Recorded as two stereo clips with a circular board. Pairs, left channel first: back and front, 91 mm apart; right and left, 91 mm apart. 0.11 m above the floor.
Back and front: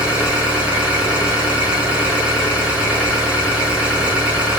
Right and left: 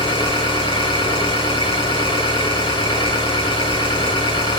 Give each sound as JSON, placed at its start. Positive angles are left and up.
{"t": 0.0, "sound": "an engine running", "azimuth_deg": -75, "distance_m": 5.0}